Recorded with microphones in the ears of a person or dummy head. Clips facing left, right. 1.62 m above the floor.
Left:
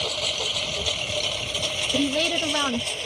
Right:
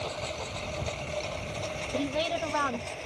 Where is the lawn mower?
50° left (ahead or behind).